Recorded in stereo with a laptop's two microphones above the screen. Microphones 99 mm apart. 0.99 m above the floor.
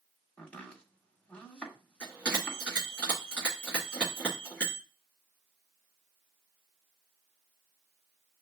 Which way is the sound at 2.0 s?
10° left (ahead or behind).